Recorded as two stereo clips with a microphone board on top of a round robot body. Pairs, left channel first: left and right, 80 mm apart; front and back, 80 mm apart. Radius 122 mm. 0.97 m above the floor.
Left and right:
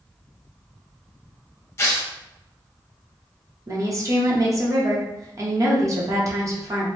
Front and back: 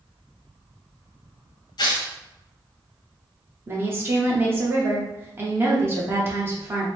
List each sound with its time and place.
1.8 s tearing paper: 30° left, 0.8 m
3.7 s a woman speaking: 130° right, 1.1 m